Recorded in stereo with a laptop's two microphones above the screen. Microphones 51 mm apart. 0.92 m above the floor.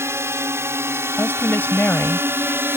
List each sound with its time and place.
0.0 s a drone: 65° right (ahead or behind); by 2.8 s 55° right (ahead or behind)
1.2 s a woman speaking: 40° left (ahead or behind)